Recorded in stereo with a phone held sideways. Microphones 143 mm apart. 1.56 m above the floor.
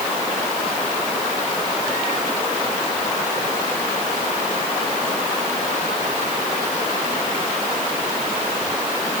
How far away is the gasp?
No gasp in this recording.